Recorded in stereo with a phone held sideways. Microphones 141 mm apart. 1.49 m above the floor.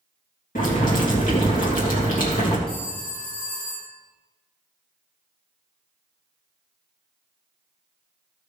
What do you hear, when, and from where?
0.6 s boiling: 75° left (ahead or behind), 2.5 m
2.7 s a phone ringing: 5° left (ahead or behind), 4.5 m